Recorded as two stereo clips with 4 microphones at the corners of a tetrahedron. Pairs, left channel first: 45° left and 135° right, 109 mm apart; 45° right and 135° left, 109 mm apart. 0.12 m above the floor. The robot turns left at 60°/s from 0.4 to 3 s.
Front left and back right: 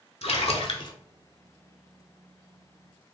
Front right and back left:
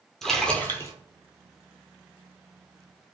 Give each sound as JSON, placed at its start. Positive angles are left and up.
{"t": 0.2, "sound": "a splash", "azimuth_deg": 40, "distance_m": 0.5}